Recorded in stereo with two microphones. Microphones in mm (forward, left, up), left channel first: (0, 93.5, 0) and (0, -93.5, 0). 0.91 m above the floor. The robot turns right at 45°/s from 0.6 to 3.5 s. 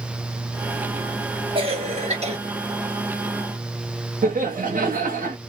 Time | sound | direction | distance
1.6 | a cough | 120° right | 1.1 m
4.2 | laughter | 50° right (ahead or behind) | 0.9 m